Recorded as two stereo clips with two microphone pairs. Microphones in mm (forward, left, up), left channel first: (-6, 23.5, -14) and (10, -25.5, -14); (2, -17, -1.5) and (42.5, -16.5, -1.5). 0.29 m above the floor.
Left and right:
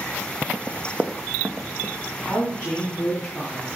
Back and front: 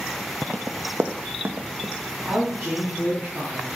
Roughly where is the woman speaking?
Ahead.